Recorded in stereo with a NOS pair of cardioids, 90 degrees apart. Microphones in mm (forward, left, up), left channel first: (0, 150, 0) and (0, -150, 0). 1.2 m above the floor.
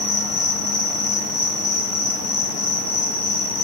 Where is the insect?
55° left, 1.3 m.